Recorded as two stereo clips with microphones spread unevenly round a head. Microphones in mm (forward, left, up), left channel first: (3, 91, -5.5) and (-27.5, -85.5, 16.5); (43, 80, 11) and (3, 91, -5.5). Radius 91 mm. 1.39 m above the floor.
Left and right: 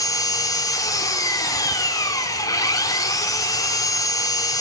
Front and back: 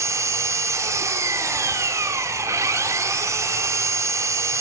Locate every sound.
0.0 s an engine running: 155° left, 3 m